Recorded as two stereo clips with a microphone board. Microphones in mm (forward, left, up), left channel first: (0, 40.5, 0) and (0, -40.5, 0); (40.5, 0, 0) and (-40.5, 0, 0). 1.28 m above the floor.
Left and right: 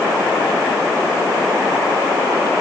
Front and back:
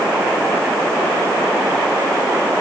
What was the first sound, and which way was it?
Only background noise.